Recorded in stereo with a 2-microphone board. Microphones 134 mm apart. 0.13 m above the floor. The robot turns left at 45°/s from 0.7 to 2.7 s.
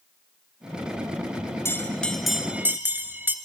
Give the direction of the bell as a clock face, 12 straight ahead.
11 o'clock.